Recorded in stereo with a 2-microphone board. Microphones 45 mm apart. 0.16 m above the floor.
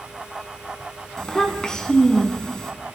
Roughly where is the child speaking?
Centre.